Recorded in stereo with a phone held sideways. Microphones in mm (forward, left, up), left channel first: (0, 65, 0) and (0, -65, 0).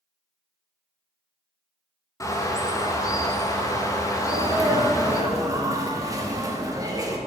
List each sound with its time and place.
2.2 s a bird: 25° left (ahead or behind), 0.7 m
4.2 s a sneeze: 25° right (ahead or behind), 1.0 m